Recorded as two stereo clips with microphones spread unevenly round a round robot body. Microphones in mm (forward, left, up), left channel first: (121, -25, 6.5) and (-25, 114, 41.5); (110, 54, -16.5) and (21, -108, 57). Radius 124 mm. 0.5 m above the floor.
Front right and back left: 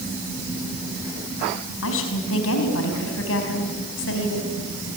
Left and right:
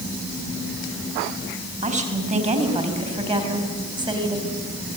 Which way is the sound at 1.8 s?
60° right.